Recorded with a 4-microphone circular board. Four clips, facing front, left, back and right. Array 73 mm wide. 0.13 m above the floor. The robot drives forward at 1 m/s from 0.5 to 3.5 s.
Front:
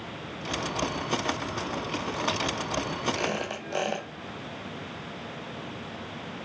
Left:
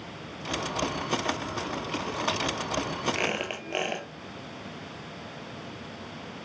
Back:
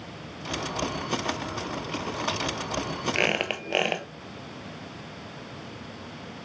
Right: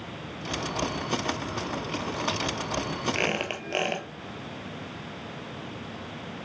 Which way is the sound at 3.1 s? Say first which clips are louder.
Right 2 dB, back 3 dB; 170° right.